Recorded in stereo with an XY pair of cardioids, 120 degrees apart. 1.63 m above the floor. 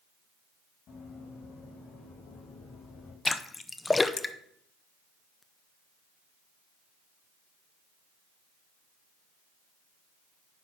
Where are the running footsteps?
60° left, 5.5 m; by 3.1 s 80° left, 5.5 m.